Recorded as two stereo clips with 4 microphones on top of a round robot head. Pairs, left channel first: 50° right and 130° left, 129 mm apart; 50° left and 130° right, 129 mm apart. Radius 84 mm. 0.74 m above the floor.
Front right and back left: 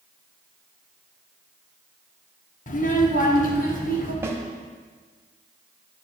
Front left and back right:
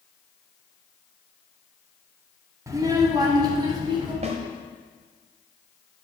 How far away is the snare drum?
About 1.3 m.